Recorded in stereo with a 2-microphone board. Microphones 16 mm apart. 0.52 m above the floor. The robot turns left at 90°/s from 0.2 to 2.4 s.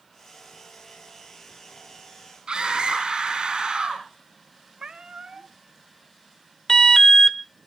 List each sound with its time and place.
2.5 s a scream: 75° right (ahead or behind), 4 m
4.8 s a cat meowing: 65° right (ahead or behind), 1.0 m
6.7 s an alarm: 40° left (ahead or behind), 0.8 m